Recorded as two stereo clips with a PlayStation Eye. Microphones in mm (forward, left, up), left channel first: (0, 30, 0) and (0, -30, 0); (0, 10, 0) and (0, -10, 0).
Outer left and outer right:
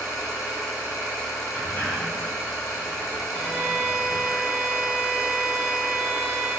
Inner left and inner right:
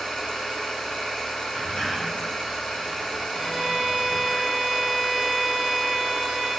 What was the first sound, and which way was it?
An engine running, 90° left.